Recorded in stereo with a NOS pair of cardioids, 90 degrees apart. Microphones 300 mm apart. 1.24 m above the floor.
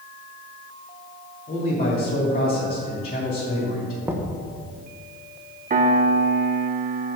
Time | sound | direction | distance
1.5 | a man speaking | 25° left | 2.5 m
4.0 | knocking | 5° right | 1.1 m
5.7 | a piano | 30° right | 0.8 m